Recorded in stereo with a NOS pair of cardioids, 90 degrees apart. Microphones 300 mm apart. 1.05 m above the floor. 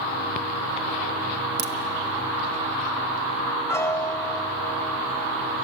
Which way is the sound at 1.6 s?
35° right.